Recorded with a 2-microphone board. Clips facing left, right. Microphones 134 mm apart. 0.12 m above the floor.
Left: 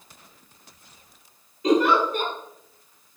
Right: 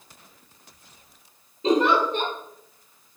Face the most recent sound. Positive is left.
turn(degrees=-30)  # may be behind; listen again after turning